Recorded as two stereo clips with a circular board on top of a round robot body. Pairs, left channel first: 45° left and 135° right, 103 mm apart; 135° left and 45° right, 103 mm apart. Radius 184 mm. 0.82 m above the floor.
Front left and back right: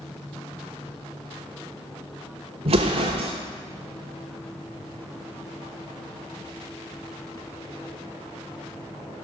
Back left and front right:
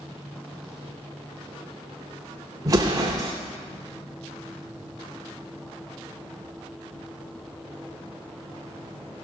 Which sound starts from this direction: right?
An explosion, at 2.6 s.